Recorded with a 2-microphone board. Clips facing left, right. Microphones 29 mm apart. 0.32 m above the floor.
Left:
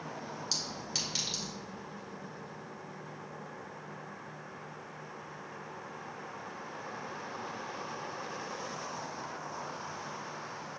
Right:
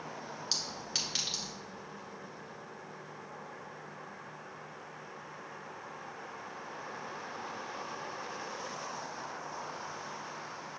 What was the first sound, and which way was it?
A clink, 20° right (ahead or behind).